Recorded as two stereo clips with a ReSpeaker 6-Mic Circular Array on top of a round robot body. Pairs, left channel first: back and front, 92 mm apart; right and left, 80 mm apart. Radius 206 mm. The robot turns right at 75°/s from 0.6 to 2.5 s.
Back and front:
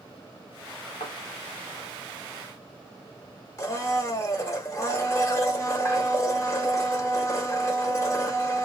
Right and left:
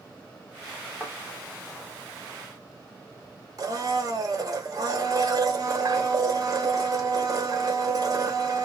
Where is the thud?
170° right, 0.8 m; by 1.1 s 160° right, 0.8 m.